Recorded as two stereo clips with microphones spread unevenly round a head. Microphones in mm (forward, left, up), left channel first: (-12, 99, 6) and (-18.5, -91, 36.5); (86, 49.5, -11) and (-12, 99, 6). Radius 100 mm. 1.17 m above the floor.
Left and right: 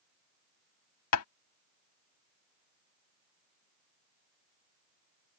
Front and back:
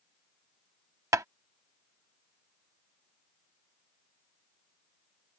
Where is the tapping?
95° left.